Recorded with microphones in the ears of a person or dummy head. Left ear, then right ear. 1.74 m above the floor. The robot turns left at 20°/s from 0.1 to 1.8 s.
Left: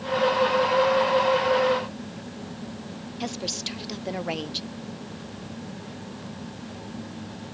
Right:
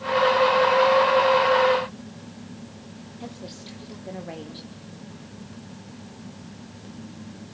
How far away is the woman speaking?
About 1.1 m.